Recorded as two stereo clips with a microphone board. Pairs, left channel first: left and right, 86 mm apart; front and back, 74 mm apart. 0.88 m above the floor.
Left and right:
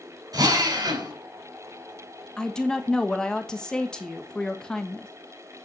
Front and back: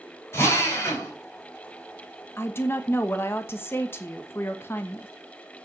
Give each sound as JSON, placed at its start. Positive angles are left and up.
{"t": 0.3, "sound": "a drill", "azimuth_deg": -50, "distance_m": 5.0}
{"t": 2.4, "sound": "a woman speaking", "azimuth_deg": 15, "distance_m": 1.1}